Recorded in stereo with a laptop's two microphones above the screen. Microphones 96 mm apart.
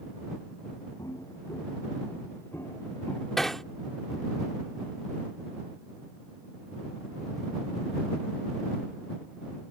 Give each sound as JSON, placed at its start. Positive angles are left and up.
{"t": 1.0, "sound": "footsteps", "side_deg": 35}
{"t": 3.4, "sound": "hammering", "side_deg": 5}